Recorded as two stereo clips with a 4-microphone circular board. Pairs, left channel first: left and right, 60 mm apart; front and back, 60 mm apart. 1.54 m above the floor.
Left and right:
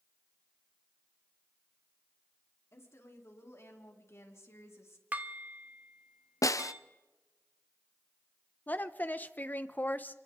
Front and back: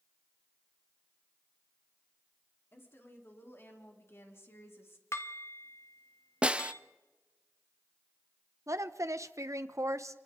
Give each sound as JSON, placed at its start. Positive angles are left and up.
{"t": 2.7, "sound": "a woman speaking", "azimuth_deg": 50, "distance_m": 4.0}
{"t": 5.1, "sound": "dishes clattering", "azimuth_deg": -30, "distance_m": 1.4}
{"t": 6.4, "sound": "a snare drum", "azimuth_deg": 105, "distance_m": 0.6}
{"t": 8.7, "sound": "a woman speaking", "azimuth_deg": 145, "distance_m": 1.0}